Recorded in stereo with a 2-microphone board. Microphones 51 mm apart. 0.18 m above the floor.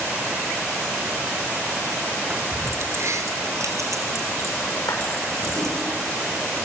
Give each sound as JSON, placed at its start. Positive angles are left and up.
{"t": 2.3, "sound": "keys jangling", "side_deg": -35, "distance_m": 1.4}
{"t": 4.9, "sound": "a clap", "side_deg": 85, "distance_m": 8.0}